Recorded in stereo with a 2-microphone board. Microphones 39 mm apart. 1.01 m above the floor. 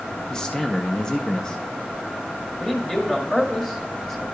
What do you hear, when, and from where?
0.3 s a man speaking: 15° left (ahead or behind), 0.6 m
2.6 s a man speaking: 15° left (ahead or behind), 1.8 m